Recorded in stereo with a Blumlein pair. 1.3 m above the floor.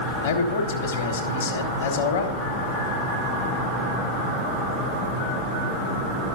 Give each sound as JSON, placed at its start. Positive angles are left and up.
{"t": 0.2, "sound": "a man speaking", "azimuth_deg": 55, "distance_m": 1.6}